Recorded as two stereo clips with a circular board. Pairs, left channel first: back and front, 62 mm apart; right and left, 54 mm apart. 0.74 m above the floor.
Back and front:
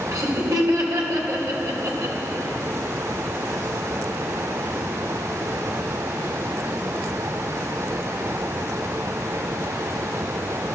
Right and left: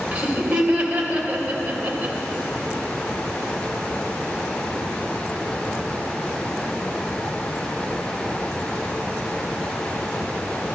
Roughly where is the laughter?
Ahead left.